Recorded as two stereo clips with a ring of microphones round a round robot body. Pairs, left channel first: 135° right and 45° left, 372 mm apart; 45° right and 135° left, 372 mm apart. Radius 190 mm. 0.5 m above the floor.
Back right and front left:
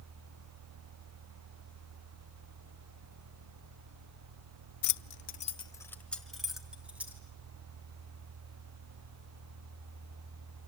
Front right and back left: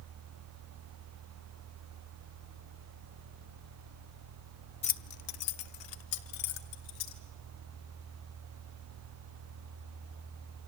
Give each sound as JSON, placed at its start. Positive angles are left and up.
{"t": 4.8, "sound": "keys jangling", "azimuth_deg": -115, "distance_m": 0.6}